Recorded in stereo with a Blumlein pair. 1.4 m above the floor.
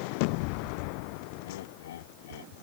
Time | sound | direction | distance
1.4 | laughter | 60° left | ?